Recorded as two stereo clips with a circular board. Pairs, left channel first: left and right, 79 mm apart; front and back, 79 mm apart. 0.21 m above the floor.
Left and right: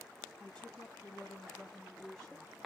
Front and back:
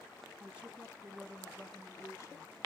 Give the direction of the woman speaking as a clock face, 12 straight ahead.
7 o'clock.